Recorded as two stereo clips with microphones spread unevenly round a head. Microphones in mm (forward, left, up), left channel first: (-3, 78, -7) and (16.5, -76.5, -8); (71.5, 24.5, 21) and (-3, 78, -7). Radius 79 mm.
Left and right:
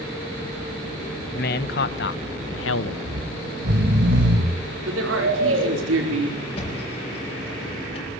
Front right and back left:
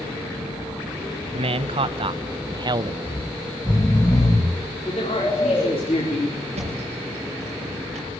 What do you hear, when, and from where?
1.3 s a man speaking: 130° left, 1.7 m; by 3.0 s 100° left, 1.2 m
3.0 s snoring: 105° right, 4 m
4.9 s a man speaking: 95° right, 4.5 m
6.5 s a thud: 155° left, 9.5 m